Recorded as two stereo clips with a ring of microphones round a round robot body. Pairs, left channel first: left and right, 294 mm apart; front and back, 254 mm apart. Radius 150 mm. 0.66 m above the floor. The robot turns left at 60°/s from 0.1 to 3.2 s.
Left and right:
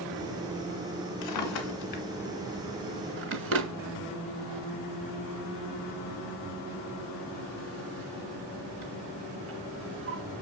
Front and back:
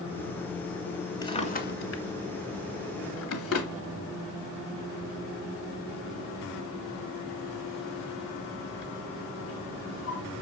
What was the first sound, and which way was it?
A drawer, 75° left.